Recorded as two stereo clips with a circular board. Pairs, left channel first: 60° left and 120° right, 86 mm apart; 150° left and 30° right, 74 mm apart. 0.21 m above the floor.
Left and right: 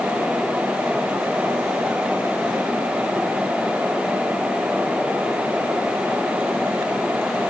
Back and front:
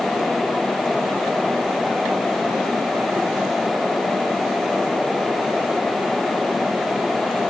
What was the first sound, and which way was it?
Only background noise.